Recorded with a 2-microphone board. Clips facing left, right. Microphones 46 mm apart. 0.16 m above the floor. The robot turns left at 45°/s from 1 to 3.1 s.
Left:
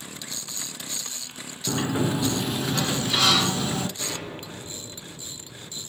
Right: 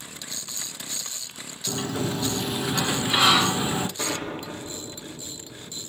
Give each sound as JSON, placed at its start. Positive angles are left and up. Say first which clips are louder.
{"t": 1.7, "sound": "a sliding door", "louder": "left 3 dB", "azimuth_deg": 35, "distance_m": 0.8}
{"t": 4.0, "sound": "an explosion", "louder": "right 4 dB", "side_deg": -65, "distance_m": 4.0}